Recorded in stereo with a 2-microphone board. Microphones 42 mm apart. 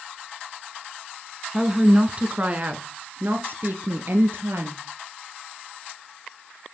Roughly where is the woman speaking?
Centre.